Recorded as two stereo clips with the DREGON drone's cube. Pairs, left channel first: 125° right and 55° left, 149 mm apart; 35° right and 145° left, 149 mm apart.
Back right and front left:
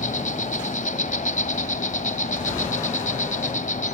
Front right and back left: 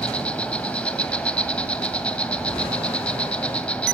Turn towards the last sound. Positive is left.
turn(degrees=-115)